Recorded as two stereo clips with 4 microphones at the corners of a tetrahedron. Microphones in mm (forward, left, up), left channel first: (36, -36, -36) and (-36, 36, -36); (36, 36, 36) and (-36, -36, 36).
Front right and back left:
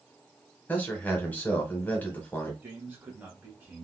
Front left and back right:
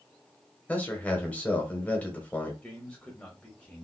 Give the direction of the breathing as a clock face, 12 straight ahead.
No breathing in this recording.